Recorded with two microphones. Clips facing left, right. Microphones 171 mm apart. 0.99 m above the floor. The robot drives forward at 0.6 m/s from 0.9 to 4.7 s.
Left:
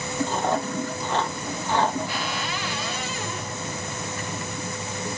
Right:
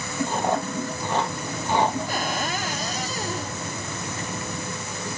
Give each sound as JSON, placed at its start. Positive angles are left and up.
{"t": 0.3, "sound": "chewing", "side_deg": -10, "distance_m": 2.5}
{"t": 2.1, "sound": "a cupboard door", "side_deg": -45, "distance_m": 0.9}